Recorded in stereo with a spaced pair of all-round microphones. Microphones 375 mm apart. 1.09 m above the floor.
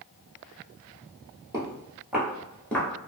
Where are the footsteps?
10° right (ahead or behind), 1.2 m; by 2.9 s 5° left (ahead or behind), 1.0 m.